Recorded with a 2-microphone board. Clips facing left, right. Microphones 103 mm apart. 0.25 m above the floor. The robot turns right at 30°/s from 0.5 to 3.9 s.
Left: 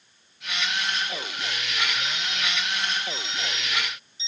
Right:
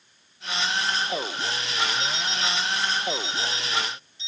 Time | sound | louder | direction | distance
2.0 | an alarm clock | right 2 dB | 110° right | 3.5 m